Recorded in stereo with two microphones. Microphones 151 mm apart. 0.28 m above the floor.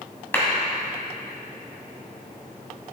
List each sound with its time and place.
0.3 s a clap: 15° left (ahead or behind), 1.9 m